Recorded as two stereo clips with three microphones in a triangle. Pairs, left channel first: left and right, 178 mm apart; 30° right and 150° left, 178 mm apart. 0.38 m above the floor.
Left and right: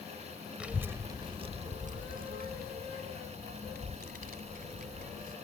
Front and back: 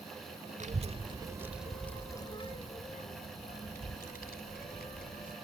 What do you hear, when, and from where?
0.6 s a child speaking: 170° right; by 5.3 s 55° right